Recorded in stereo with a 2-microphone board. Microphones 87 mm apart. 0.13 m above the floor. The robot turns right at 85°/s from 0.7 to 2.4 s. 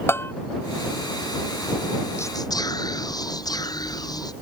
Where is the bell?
25° left (ahead or behind).